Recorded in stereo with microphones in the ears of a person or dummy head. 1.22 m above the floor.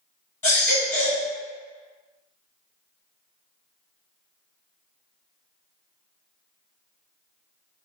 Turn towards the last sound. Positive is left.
turn(degrees=10)  # may be behind; listen again after turning